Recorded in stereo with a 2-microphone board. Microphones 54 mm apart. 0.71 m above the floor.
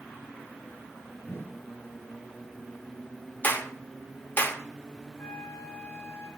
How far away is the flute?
About 2.5 m.